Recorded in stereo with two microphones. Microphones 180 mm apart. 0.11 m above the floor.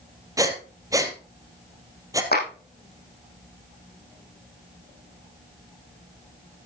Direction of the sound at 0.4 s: 20° right (ahead or behind).